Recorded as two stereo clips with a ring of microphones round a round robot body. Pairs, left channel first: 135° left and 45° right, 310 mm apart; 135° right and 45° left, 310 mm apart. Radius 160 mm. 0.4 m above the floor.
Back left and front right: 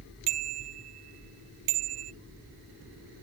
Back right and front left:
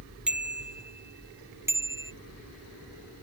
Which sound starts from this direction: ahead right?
A bicycle bell, at 0.3 s.